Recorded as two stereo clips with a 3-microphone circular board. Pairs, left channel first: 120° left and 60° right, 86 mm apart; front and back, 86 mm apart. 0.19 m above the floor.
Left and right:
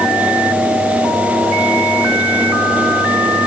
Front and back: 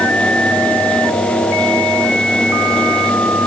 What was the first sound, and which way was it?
Only background noise.